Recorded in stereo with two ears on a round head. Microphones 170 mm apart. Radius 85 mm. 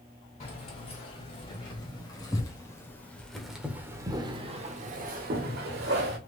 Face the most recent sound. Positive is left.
turn(degrees=-60)  # may be behind; listen again after turning